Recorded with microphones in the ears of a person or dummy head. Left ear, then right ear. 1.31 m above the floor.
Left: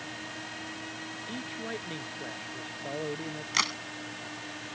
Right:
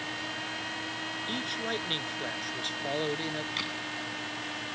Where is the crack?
50° left (ahead or behind).